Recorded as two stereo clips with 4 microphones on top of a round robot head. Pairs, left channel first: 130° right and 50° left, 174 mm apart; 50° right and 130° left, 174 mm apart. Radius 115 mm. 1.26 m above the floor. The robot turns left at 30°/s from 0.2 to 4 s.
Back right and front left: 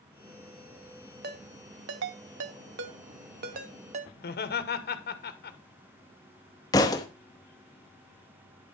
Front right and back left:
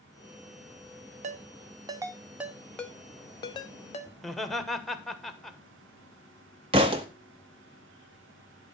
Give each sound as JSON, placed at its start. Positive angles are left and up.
{"t": 1.2, "sound": "a ringtone", "azimuth_deg": 80, "distance_m": 0.6}
{"t": 4.2, "sound": "laughter", "azimuth_deg": -140, "distance_m": 1.4}
{"t": 6.7, "sound": "a thud", "azimuth_deg": 175, "distance_m": 0.6}